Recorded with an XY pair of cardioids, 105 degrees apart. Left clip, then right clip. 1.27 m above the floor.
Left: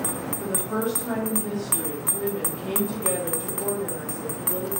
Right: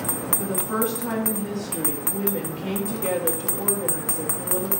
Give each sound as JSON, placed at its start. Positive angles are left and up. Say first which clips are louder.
{"t": 0.4, "sound": "a woman speaking", "louder": "right 1 dB", "azimuth_deg": -70, "distance_m": 2.0}